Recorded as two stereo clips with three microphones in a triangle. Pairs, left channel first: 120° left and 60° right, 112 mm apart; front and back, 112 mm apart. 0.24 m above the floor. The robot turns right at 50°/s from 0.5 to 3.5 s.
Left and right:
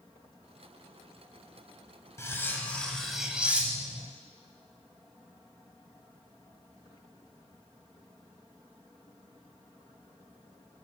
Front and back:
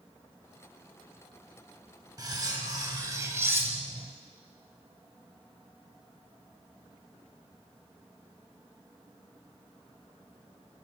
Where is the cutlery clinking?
165° left, 0.6 m; by 4.1 s 130° right, 0.6 m.